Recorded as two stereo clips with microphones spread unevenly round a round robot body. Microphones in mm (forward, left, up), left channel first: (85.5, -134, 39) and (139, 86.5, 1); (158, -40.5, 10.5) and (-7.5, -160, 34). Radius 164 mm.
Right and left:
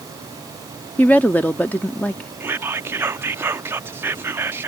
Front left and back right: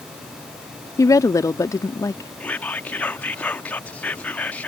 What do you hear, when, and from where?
1.0 s a woman speaking: 10° right
2.4 s whispering: 80° left